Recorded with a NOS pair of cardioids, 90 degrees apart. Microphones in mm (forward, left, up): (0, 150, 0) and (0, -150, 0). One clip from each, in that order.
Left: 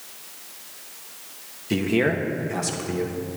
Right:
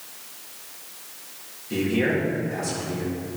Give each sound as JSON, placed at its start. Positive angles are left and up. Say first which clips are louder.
{"t": 1.7, "sound": "a man speaking", "louder": "left 1 dB", "azimuth_deg": 60, "distance_m": 1.8}